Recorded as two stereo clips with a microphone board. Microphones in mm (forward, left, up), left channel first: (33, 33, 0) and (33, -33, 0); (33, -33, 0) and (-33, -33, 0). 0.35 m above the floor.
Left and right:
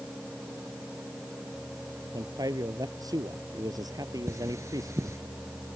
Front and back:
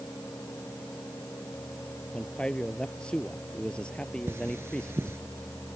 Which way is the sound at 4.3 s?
130° right.